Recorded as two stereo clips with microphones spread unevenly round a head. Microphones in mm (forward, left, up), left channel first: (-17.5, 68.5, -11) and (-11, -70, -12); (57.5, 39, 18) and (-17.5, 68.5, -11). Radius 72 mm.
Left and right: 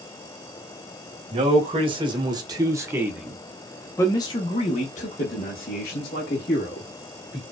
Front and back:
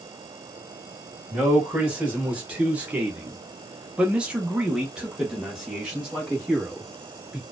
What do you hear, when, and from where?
1.3 s a man speaking: 135° right, 1.6 m; by 7.4 s 75° left, 2 m